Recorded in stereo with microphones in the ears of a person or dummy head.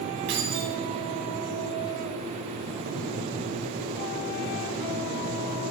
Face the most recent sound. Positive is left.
turn(degrees=-65)  # may be behind; listen again after turning